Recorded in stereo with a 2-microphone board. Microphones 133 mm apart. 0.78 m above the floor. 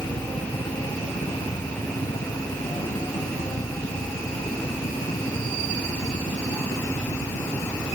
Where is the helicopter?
55° left (ahead or behind); by 8.0 s 65° left (ahead or behind).